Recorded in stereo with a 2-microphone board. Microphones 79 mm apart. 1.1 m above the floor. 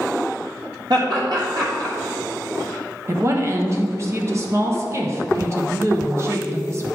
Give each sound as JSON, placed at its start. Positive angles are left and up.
{"t": 0.9, "sound": "laughter", "side_deg": -70, "distance_m": 1.6}
{"t": 3.1, "sound": "a woman speaking", "side_deg": -35, "distance_m": 1.1}